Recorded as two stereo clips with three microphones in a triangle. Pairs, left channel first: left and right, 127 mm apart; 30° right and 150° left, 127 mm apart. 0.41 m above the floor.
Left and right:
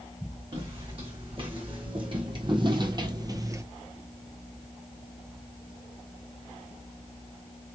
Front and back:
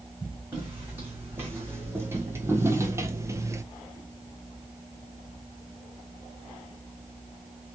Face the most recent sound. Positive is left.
turn(degrees=-150)